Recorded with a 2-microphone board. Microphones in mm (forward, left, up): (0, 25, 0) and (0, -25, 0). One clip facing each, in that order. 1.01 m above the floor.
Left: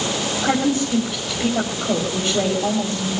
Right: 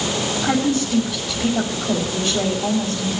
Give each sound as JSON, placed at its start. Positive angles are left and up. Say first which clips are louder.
{"t": 0.4, "sound": "a woman speaking", "louder": "left 1 dB", "side_deg": 25, "distance_m": 5.0}